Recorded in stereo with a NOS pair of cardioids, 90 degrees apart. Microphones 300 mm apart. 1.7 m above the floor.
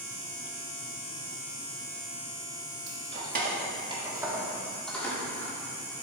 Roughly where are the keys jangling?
Ahead right.